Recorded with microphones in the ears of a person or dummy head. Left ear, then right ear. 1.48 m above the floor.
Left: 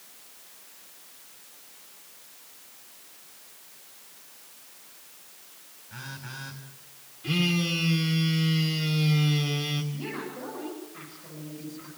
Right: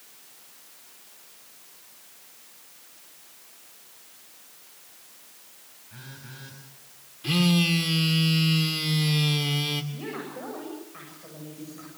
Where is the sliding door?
I don't hear a sliding door.